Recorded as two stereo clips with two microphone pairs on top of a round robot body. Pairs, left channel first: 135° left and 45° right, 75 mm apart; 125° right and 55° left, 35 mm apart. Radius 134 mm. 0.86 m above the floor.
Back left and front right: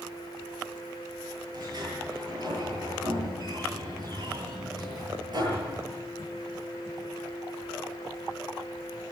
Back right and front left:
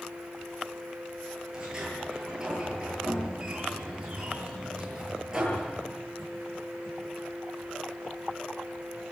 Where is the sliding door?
15° right, 9.5 m.